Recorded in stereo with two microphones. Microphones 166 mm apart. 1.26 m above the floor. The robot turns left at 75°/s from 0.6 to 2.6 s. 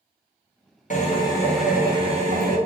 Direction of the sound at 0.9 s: 55° left.